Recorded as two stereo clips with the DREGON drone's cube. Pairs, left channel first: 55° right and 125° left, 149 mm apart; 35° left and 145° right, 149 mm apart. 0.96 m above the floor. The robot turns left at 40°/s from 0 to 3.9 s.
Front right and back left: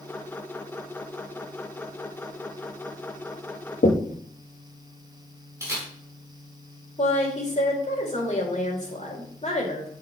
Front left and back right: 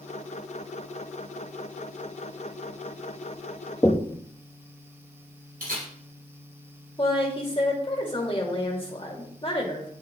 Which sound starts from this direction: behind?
A camera shutter, at 5.6 s.